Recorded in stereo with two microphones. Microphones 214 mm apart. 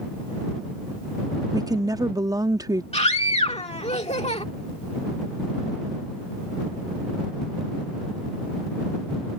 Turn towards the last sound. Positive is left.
turn(degrees=30)  # may be behind; listen again after turning